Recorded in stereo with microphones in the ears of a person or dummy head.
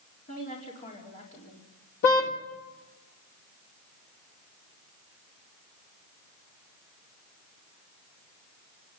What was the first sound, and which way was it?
A woman speaking, 40° left (ahead or behind).